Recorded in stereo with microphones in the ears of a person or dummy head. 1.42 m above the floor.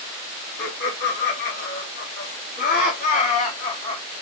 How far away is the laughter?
About 3 m.